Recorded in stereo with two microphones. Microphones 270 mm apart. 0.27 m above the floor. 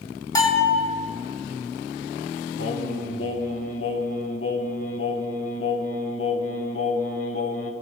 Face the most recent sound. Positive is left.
turn(degrees=55)  # may be behind; listen again after turning